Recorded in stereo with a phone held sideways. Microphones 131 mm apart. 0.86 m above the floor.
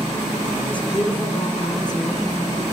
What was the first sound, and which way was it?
A woman speaking, 40° left (ahead or behind).